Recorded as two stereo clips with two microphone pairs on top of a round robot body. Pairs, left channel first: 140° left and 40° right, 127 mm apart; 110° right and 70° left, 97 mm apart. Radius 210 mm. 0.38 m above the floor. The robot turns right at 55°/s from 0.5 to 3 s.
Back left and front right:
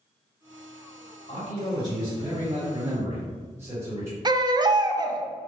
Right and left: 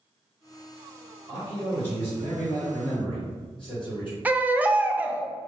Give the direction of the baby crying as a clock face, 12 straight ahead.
12 o'clock.